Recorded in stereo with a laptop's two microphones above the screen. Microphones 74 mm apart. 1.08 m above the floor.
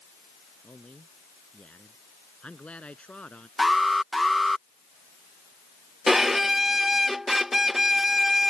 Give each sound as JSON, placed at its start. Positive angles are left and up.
{"t": 0.6, "sound": "a man speaking", "side_deg": 20}
{"t": 3.6, "sound": "an alarm", "side_deg": 0}
{"t": 6.1, "sound": "a violin", "side_deg": -5}